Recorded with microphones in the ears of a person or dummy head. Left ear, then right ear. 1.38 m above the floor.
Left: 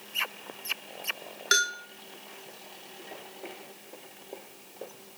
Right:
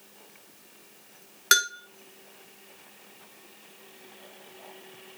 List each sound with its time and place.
1.5 s a bell: 40° right (ahead or behind), 1.3 m